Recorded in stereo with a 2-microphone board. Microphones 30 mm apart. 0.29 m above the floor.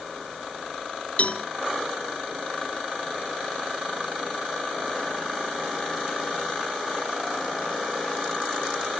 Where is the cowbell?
55° left (ahead or behind), 1.0 m.